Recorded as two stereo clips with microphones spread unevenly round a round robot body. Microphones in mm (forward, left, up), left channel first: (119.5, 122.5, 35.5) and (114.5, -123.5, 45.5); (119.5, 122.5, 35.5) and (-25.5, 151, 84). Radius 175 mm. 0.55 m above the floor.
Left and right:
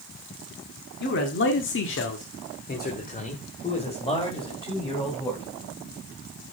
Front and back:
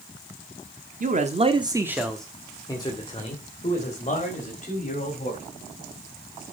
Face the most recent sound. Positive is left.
turn(degrees=15)